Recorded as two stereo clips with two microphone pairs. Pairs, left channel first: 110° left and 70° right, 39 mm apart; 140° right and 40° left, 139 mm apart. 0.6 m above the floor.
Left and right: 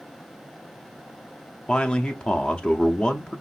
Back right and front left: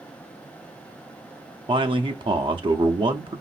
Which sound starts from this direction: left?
A man speaking, at 1.7 s.